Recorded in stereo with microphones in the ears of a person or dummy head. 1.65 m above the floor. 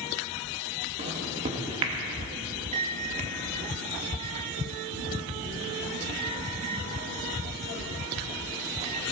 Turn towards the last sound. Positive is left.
turn(degrees=-30)  # may be behind; listen again after turning